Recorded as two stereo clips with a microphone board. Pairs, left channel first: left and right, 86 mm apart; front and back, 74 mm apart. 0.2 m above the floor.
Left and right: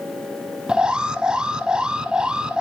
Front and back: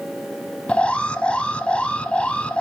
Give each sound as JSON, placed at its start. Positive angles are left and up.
{"t": 0.7, "sound": "an alarm", "azimuth_deg": -35, "distance_m": 0.8}